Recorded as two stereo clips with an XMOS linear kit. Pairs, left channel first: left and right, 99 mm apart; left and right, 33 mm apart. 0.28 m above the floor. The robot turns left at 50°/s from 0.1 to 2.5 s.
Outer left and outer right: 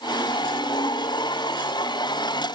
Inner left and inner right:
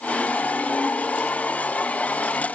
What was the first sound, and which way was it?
Only background noise.